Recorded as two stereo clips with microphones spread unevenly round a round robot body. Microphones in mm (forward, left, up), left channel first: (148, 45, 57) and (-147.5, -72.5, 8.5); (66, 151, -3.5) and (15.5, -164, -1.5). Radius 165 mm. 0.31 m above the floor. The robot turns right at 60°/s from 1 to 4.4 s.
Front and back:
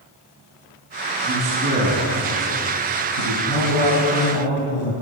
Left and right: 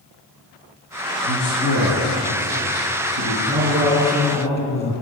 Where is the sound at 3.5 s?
45° right, 4 m; by 4.9 s 10° left, 4 m.